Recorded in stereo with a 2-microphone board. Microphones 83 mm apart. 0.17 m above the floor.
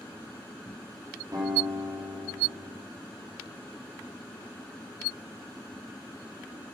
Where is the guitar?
55° right (ahead or behind), 5 m.